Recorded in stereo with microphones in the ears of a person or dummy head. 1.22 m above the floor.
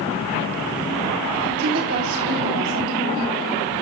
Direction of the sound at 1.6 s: 75° right (ahead or behind).